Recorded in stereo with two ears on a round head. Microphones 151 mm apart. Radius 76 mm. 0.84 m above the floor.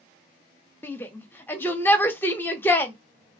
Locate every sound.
0.8 s a shout: 10° left (ahead or behind), 0.7 m